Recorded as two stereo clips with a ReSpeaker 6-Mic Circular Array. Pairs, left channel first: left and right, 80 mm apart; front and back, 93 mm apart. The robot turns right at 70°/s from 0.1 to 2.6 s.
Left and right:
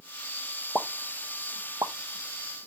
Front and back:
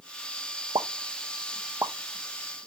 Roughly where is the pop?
Behind.